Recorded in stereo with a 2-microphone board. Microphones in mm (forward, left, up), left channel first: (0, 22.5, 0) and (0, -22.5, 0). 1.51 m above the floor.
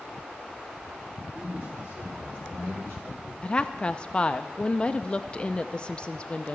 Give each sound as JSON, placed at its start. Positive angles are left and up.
{"t": 1.3, "sound": "a man speaking", "side_deg": -60, "distance_m": 3.5}
{"t": 3.4, "sound": "a woman speaking", "side_deg": 20, "distance_m": 0.5}